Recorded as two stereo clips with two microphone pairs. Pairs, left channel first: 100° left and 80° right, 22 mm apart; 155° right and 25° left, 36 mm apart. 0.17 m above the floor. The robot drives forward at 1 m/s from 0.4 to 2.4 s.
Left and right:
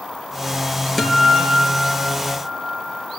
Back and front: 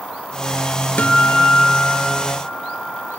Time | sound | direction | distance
1.0 | a guitar | 175° left | 3 m